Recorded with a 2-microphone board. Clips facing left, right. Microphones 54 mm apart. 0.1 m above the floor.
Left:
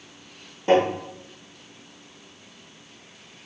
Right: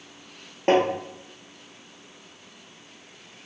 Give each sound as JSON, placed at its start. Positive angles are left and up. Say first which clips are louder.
{"t": 0.7, "sound": "tapping", "louder": "left 1 dB", "side_deg": -55, "distance_m": 1.2}